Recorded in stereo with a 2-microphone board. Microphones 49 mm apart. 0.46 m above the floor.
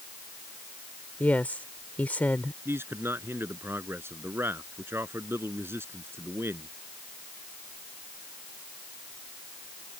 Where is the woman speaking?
35° left (ahead or behind).